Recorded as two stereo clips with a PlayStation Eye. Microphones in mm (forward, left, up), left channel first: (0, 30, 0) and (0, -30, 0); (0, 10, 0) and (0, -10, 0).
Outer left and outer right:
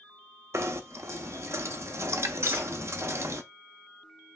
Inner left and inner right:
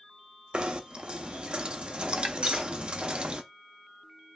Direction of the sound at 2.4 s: 50° right (ahead or behind).